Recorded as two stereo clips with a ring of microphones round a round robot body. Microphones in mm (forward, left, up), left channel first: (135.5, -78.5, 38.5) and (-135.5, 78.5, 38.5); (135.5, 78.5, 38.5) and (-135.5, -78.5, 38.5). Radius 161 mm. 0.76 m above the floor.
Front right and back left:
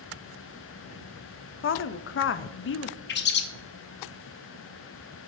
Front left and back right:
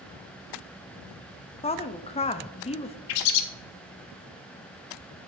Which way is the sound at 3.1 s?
30° left.